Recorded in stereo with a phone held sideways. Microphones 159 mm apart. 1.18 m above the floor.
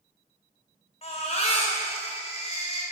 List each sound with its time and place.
1.0 s a baby crying: 45° left (ahead or behind), 3 m